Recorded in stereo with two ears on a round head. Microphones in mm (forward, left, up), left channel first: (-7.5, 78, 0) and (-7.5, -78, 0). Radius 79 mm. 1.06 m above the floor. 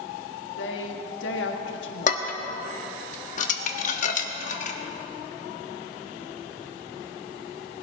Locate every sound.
0.6 s a woman speaking: 85° left, 1.4 m
2.1 s dishes clattering: 50° left (ahead or behind), 1.0 m